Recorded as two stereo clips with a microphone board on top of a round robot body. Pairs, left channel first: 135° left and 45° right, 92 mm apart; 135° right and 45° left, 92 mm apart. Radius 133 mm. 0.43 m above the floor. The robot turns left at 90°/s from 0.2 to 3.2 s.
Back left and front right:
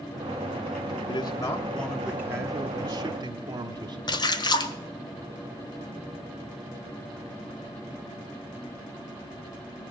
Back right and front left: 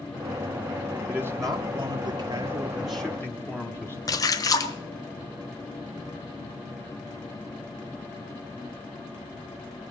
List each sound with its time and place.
1.1 s a man speaking: 120° left, 1.1 m; by 4.0 s 70° right, 1.1 m
4.1 s a splash: 175° left, 1.1 m